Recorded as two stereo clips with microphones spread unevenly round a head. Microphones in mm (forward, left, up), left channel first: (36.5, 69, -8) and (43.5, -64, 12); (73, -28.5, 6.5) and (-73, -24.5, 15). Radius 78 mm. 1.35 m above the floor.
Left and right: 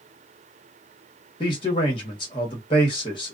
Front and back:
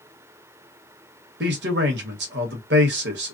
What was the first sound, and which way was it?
A man speaking, 155° left.